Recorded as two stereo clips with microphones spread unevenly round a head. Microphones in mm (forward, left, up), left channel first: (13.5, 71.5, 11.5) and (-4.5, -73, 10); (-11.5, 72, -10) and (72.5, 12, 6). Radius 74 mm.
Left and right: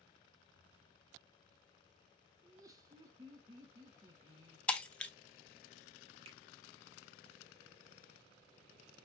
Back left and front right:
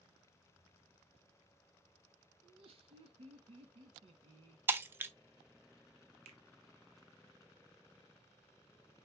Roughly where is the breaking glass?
Ahead.